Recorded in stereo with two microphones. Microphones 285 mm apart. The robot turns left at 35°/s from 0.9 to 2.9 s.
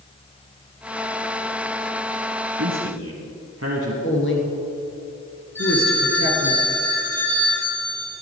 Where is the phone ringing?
5° left (ahead or behind), 5 m.